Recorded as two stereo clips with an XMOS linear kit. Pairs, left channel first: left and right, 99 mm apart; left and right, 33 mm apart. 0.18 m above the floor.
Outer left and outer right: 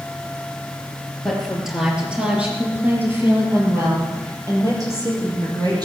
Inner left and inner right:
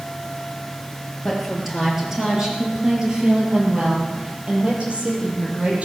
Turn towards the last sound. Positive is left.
turn(degrees=-45)  # may be behind; listen again after turning